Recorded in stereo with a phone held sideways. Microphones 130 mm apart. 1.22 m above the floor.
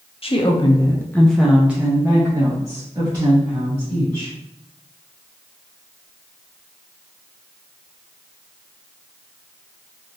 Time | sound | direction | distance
0.2 | a woman speaking | 50° left (ahead or behind) | 0.6 m